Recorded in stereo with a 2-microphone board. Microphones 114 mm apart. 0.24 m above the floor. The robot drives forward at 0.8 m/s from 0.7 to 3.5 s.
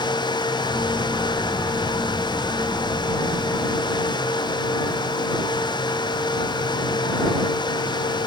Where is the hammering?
I don't hear hammering.